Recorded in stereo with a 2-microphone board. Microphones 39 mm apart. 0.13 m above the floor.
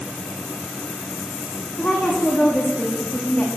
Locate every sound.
1.8 s a woman speaking: 30° left (ahead or behind), 10 m